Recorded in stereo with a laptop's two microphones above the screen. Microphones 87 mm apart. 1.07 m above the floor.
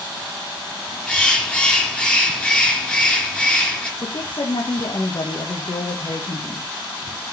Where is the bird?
15° left (ahead or behind), 2 m.